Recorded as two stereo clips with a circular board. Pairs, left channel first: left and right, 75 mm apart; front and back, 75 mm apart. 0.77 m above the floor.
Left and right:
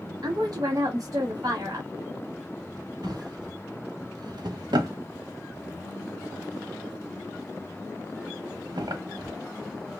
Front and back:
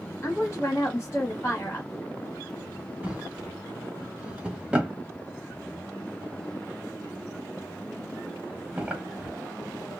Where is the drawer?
105° right, 1.1 m.